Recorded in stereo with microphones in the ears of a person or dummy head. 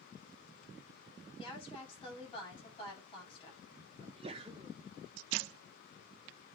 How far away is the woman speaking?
About 8.5 m.